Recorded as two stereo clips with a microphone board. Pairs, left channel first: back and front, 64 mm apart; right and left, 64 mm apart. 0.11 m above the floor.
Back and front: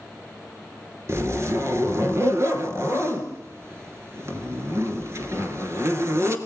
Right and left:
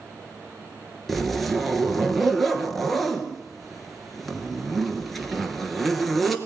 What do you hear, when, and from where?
1.1 s a zipper: straight ahead, 2 m